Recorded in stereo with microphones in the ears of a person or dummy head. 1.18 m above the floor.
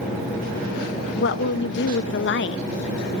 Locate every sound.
1.2 s a woman speaking: 50° left (ahead or behind), 0.7 m